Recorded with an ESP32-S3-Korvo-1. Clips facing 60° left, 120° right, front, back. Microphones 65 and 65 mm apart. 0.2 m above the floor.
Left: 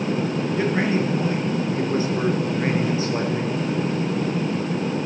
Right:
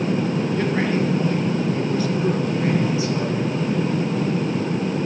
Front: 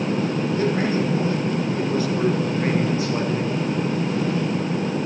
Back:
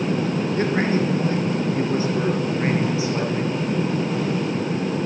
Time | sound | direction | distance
0.6 | a man speaking | 140° left | 3.5 m